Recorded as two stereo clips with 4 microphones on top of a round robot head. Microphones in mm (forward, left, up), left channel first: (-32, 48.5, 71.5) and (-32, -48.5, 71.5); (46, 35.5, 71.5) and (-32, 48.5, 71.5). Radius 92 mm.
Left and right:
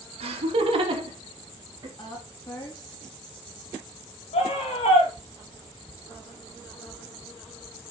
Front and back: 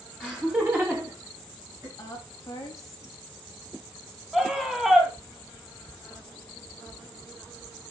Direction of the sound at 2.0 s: 40° left.